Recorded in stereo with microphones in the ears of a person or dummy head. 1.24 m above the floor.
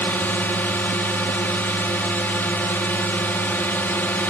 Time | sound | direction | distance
0.0 | a drone | 10° left (ahead or behind) | ?